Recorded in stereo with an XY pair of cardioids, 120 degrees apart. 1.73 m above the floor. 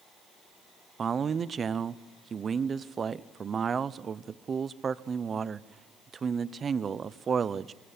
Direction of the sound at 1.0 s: 35° right.